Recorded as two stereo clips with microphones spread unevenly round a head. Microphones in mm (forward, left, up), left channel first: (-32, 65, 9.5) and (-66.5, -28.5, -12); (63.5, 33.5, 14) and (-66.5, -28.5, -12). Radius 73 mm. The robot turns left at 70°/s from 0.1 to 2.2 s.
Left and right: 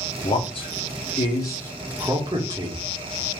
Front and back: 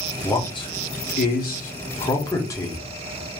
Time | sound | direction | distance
0.2 | a man speaking | 100° left | 1.3 m